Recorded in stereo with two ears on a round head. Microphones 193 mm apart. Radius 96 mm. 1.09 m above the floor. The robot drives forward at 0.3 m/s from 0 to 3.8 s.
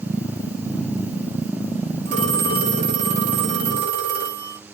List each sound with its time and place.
2.0 s a phone ringing: 60° right (ahead or behind), 3.5 m; by 4.6 s 50° right (ahead or behind), 3.5 m